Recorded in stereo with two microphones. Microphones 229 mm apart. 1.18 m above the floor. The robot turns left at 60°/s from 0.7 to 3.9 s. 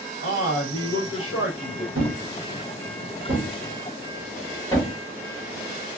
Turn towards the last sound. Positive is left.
turn(degrees=15)  # may be behind; listen again after turning